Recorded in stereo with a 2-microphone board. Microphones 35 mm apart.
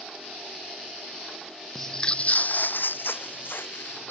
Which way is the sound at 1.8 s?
10° left (ahead or behind).